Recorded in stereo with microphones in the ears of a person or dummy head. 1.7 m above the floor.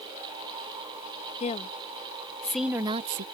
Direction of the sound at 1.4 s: 35° left (ahead or behind).